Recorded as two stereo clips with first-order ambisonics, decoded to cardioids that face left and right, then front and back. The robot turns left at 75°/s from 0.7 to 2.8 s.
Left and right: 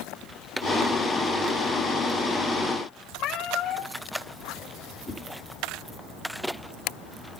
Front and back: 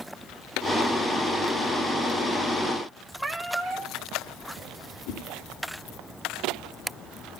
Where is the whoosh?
5° left, 3.5 m.